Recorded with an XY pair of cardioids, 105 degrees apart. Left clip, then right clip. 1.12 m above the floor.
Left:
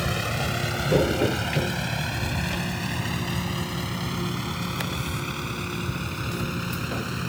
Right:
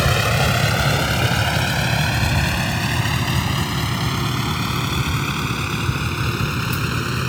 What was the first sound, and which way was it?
A vehicle, 60° right.